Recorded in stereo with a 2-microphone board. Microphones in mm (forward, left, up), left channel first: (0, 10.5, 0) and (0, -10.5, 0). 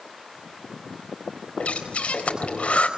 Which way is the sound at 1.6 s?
65° left (ahead or behind).